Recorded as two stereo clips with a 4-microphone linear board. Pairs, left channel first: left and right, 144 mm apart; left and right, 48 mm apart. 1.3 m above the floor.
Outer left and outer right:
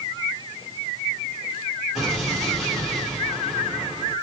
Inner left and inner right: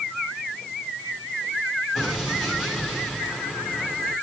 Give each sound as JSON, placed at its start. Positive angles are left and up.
{"t": 1.9, "sound": "an explosion", "side_deg": 0, "distance_m": 7.0}